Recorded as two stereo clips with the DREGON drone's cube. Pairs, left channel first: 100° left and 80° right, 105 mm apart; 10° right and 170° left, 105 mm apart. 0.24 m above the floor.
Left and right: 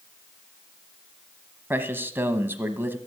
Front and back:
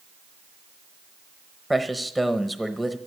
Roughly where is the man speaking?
Right.